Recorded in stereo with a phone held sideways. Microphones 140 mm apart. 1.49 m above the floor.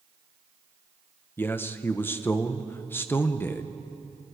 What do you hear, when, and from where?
1.4 s a man speaking: 15° left (ahead or behind), 1.2 m